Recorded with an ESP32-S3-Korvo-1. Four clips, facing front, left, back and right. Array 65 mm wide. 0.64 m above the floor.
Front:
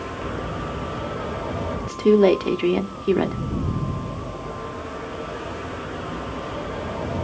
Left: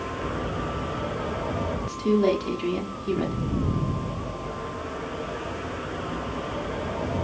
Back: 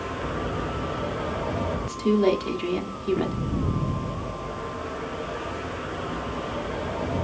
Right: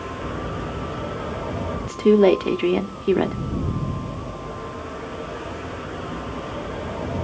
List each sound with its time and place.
1.8 s a woman speaking: 55° right, 1.2 m